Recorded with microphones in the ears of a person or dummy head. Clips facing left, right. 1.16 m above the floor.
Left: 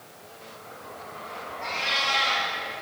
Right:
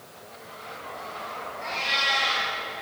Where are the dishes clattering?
I don't hear dishes clattering.